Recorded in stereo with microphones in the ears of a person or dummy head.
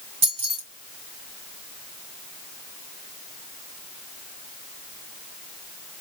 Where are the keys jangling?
40° right (ahead or behind), 1.0 m.